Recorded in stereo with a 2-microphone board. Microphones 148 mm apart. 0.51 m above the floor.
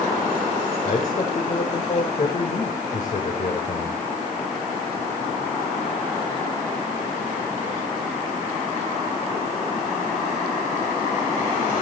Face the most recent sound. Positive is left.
turn(degrees=55)  # may be behind; listen again after turning